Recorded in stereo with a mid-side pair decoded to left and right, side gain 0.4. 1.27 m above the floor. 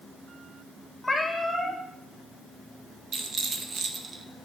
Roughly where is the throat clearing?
No throat clearing in this recording.